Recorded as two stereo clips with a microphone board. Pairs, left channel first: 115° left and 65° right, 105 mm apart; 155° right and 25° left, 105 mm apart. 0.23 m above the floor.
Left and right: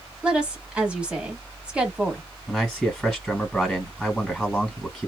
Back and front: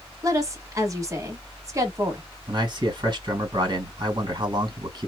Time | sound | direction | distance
0.2 | a woman speaking | 5° left | 1.0 m
2.5 | a man speaking | 25° left | 2.0 m